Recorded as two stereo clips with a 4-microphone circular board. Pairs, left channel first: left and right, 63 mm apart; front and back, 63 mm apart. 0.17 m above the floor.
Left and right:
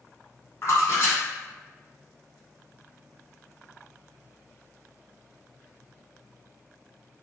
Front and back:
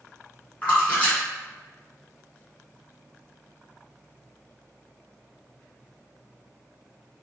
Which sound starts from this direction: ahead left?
A splash, at 0.6 s.